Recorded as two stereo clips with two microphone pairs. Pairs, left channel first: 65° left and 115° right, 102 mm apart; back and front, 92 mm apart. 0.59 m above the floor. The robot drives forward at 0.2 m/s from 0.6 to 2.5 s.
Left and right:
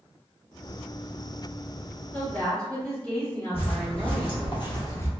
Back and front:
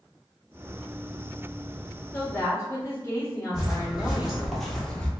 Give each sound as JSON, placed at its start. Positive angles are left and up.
{"t": 2.1, "sound": "a woman speaking", "azimuth_deg": 135, "distance_m": 1.3}
{"t": 3.5, "sound": "footsteps", "azimuth_deg": 80, "distance_m": 1.8}